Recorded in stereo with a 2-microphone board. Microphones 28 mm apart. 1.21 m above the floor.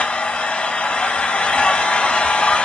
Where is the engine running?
40° left (ahead or behind), 2.5 m.